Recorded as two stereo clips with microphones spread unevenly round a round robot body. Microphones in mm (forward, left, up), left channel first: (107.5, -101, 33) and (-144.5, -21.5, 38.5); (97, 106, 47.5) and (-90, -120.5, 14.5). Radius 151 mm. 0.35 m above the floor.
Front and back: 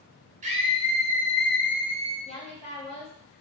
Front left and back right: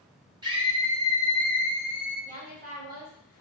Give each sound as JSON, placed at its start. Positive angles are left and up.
{"t": 0.4, "sound": "a scream", "azimuth_deg": -175, "distance_m": 1.0}
{"t": 2.2, "sound": "a woman speaking", "azimuth_deg": -80, "distance_m": 1.9}